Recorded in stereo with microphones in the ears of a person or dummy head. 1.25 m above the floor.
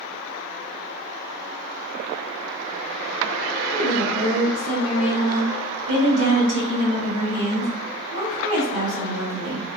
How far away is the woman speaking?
About 1.4 m.